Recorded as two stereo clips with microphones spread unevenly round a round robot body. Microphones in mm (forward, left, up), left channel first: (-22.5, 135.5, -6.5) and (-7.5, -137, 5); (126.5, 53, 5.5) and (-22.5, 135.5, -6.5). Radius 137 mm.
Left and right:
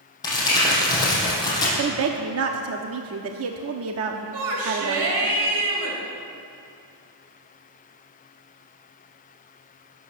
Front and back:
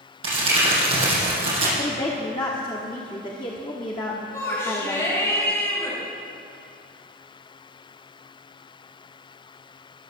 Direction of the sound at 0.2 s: 170° left.